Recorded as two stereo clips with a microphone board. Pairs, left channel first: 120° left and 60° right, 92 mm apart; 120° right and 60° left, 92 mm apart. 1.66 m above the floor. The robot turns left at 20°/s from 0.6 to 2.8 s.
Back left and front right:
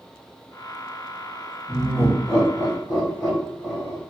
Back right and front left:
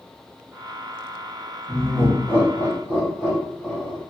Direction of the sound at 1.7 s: 170° right.